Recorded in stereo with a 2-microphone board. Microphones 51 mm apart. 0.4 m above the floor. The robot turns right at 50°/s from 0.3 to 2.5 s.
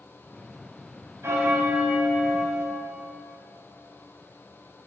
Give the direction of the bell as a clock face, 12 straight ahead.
3 o'clock.